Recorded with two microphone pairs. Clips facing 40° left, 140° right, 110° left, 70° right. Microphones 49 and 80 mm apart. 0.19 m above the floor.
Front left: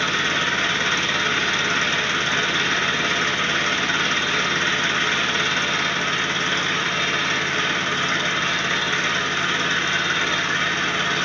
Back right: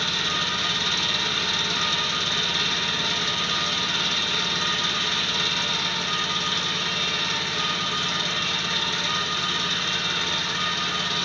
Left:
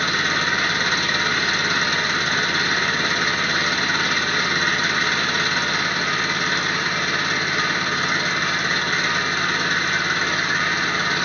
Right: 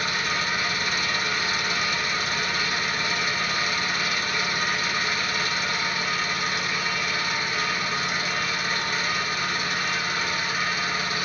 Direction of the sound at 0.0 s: 80° left.